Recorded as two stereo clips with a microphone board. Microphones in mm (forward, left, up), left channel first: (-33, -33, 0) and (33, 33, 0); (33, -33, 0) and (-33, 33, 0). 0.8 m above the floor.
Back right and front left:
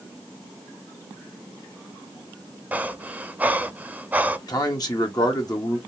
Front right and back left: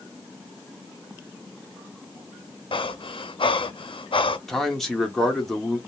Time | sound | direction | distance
2.7 | breathing | 25° right | 0.5 m
4.5 | a man speaking | 130° right | 1.1 m